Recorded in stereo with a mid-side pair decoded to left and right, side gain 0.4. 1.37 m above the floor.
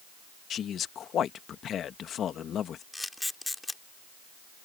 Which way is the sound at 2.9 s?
15° left.